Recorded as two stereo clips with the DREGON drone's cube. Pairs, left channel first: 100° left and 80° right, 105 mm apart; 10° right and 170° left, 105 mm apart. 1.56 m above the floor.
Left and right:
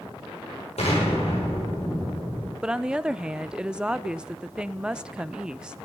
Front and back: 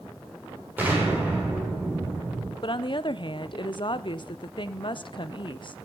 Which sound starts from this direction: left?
An explosion, at 0.8 s.